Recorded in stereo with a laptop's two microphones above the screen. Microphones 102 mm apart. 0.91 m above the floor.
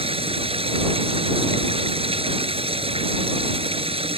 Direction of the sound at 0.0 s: 70° right (ahead or behind).